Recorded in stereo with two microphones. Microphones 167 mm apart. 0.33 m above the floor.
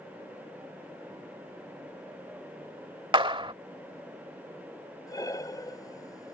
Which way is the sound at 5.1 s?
20° left (ahead or behind).